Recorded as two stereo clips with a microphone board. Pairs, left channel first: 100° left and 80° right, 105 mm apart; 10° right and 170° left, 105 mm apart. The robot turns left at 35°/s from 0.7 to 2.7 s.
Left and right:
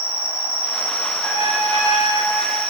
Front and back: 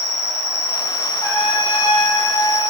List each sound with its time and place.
0.0 s an insect: 40° right, 1.2 m; by 2.7 s 110° right, 1.2 m
1.2 s a trumpet: 15° right, 0.7 m; by 2.6 s 60° right, 0.7 m